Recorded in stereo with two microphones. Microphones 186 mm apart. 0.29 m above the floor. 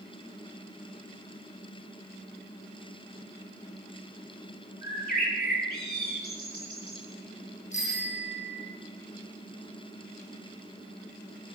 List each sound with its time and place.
4.8 s a bird: 55° left (ahead or behind), 6.5 m
7.7 s a bicycle bell: 40° left (ahead or behind), 10 m